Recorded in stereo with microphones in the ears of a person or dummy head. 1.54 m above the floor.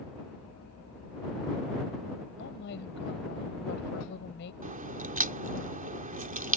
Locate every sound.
2.4 s a woman speaking: 60° left (ahead or behind)
4.6 s a crack: 40° right (ahead or behind)